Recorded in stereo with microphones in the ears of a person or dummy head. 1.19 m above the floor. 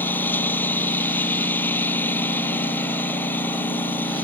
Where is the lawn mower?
10° left (ahead or behind).